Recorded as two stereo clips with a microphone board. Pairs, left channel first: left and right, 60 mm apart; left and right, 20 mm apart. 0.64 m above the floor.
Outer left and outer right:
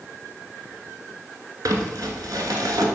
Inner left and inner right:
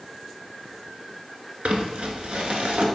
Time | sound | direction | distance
1.6 | crumpling | 70° right (ahead or behind) | 1.4 m